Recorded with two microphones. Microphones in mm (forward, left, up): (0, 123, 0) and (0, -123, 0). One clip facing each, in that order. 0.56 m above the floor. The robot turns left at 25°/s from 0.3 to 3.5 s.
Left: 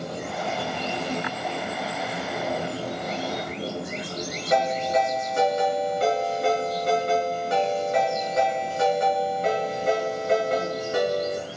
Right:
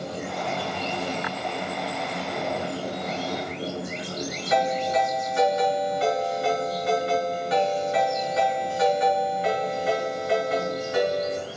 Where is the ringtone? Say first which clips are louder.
Left 1 dB; 45° left (ahead or behind), 4.5 m.